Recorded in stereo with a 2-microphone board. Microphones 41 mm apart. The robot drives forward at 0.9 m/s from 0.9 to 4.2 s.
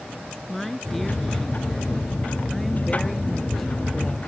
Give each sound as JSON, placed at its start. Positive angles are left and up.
{"t": 0.5, "sound": "a woman speaking", "side_deg": 5}